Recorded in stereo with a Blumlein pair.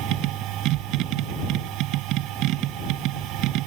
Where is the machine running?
40° right.